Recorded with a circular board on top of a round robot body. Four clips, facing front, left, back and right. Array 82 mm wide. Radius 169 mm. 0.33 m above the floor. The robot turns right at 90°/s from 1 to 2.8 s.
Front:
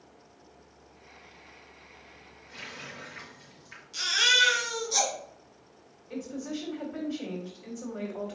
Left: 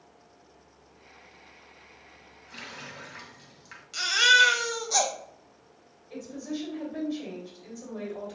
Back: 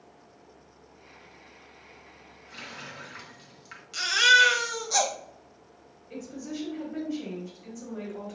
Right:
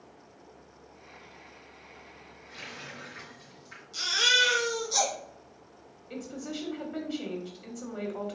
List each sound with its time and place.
2.5 s a running tap: 120° left, 1.8 m; by 3.8 s 145° left, 1.8 m
3.9 s a baby crying: 140° left, 1.3 m
6.1 s a woman speaking: 80° right, 1.8 m